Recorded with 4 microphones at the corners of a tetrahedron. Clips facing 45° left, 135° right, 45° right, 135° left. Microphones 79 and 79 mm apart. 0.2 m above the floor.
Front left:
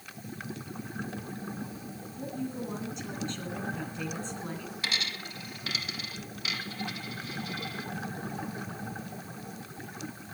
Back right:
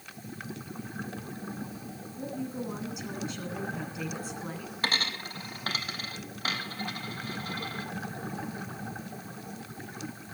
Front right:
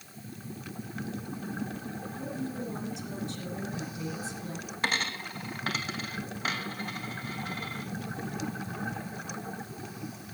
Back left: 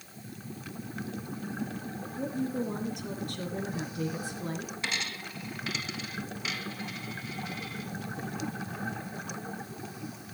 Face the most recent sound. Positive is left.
turn(degrees=-90)